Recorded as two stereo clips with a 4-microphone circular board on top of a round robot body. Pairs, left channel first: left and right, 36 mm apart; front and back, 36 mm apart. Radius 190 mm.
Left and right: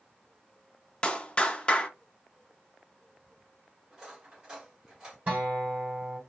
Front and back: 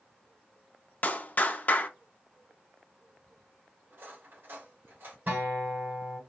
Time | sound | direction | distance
1.0 | a clap | 30° left | 0.9 m
3.9 | cutlery clinking | 155° right | 1.9 m
5.3 | a guitar | 140° right | 2.5 m